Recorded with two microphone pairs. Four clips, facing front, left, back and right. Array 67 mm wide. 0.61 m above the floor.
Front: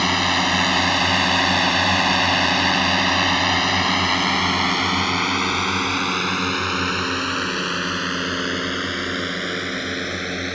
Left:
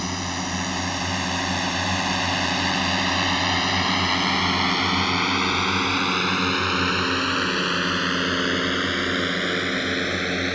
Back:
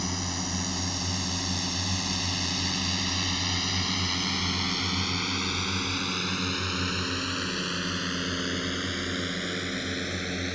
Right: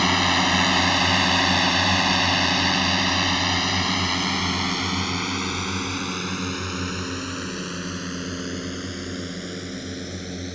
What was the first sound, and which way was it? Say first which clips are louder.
A drone: right 8 dB, front 14 dB; 30° right.